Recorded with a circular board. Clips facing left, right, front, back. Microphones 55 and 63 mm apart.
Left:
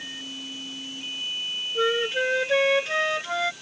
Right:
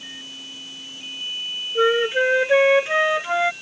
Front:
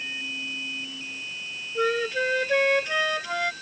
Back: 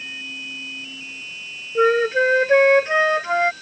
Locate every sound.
1.8 s a flute: 145° right